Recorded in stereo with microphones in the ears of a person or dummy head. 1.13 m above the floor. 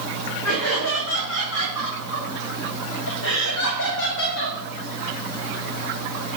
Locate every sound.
0.4 s laughter: 75° left (ahead or behind), 5.5 m; by 4.6 s 70° left (ahead or behind), 2 m